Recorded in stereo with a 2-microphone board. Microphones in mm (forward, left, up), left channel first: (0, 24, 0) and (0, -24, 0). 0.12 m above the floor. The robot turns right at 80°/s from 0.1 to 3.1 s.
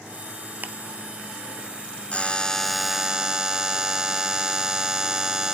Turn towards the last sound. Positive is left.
turn(degrees=-155)